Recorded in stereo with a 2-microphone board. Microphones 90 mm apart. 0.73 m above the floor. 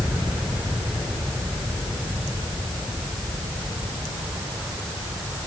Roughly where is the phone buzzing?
No phone buzzing in this recording.